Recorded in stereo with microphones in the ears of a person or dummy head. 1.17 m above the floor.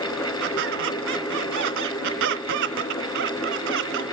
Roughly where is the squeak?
Right.